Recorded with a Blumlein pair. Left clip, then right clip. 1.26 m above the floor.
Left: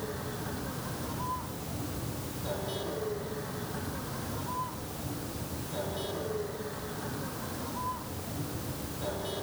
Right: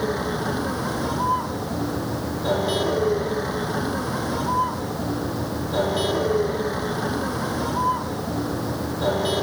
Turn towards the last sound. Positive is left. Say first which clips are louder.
# right 13 dB
turn(degrees=-35)